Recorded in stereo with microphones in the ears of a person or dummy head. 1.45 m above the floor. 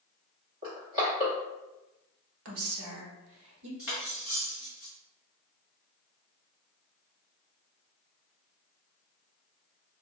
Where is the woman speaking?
75° right (ahead or behind), 1.1 m.